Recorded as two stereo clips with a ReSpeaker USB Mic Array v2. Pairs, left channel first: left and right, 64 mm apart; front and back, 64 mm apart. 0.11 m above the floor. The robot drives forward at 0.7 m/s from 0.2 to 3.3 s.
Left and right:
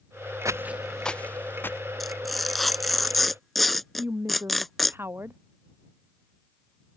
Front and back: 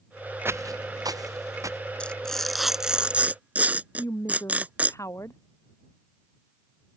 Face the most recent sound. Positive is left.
turn(degrees=-35)